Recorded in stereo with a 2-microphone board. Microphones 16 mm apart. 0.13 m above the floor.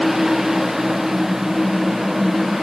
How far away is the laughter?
No laughter in this recording.